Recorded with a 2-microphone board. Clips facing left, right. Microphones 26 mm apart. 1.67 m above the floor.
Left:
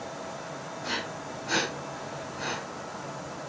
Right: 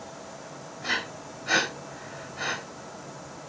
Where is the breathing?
40° right (ahead or behind), 4 m.